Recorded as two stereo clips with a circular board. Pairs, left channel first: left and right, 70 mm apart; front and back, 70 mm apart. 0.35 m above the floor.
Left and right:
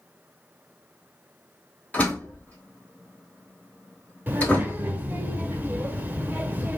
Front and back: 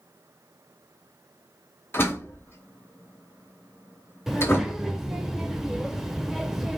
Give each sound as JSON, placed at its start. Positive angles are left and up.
{"t": 1.9, "sound": "a door slam", "azimuth_deg": 30, "distance_m": 1.0}
{"t": 4.3, "sound": "a child speaking", "azimuth_deg": -100, "distance_m": 0.7}